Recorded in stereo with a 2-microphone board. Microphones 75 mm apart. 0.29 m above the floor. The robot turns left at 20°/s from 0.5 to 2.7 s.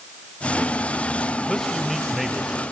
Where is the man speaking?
5° left (ahead or behind), 0.9 m; by 2.6 s 5° right (ahead or behind), 0.9 m.